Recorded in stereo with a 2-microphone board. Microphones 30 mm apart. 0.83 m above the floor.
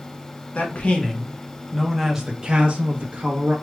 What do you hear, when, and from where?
0.6 s a man speaking: 50° left (ahead or behind), 0.9 m; by 3.5 s 55° right (ahead or behind), 1.0 m